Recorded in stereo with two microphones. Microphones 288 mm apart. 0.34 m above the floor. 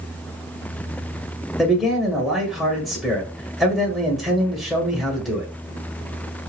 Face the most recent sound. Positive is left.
turn(degrees=0)  # may be behind; listen again after turning